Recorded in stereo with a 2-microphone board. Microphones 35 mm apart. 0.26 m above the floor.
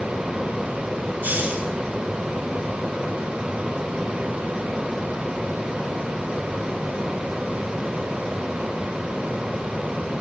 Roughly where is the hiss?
Right.